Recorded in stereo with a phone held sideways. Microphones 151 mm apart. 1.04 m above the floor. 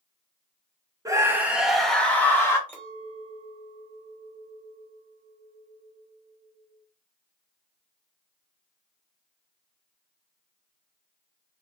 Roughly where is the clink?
Centre.